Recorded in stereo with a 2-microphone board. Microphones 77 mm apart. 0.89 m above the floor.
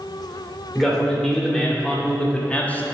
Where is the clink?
I don't hear a clink.